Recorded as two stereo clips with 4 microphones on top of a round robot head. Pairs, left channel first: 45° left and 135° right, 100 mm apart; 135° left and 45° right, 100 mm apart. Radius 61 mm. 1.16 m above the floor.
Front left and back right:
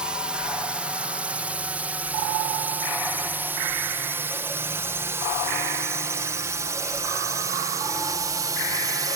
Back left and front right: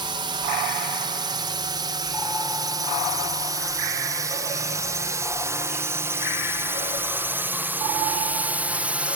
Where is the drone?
55° right; by 9.2 s 115° right.